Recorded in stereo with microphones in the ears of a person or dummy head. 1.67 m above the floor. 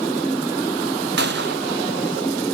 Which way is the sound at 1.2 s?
60° right (ahead or behind).